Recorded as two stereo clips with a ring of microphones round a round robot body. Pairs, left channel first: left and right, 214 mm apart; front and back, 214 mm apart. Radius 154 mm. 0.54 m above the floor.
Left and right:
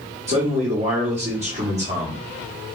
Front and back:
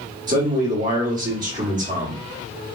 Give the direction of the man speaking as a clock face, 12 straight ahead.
5 o'clock.